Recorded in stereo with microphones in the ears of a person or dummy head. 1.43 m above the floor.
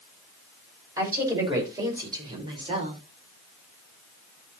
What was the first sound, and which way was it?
A woman speaking, 25° right (ahead or behind).